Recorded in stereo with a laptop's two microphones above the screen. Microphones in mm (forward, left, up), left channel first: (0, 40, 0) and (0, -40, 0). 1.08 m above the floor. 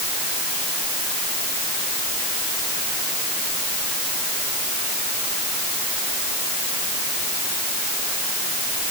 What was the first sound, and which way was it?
Only background noise.